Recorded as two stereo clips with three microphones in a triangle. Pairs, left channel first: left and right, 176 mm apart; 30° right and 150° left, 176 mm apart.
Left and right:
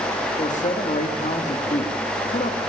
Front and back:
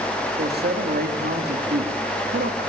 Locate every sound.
0.4 s a man speaking: 135° left, 2 m